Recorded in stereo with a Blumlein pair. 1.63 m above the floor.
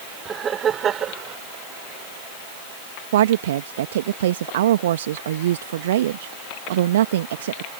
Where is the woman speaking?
60° right.